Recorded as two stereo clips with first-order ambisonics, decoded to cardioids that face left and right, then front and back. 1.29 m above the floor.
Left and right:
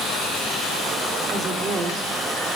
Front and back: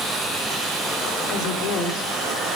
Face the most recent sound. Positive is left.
turn(degrees=-25)